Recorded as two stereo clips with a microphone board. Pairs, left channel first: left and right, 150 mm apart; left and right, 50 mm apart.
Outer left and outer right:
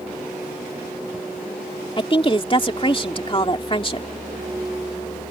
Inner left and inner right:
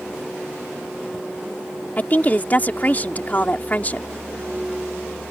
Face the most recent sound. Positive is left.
turn(degrees=35)  # may be behind; listen again after turning